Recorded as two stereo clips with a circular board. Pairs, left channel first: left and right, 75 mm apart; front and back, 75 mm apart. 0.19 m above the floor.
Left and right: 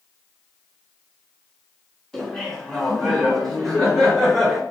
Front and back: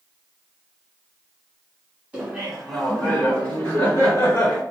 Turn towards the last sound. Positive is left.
turn(degrees=10)